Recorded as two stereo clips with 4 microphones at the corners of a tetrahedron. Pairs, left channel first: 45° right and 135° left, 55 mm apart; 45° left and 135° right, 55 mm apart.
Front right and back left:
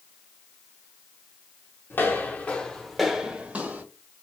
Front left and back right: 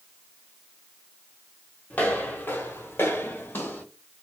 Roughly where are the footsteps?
Ahead.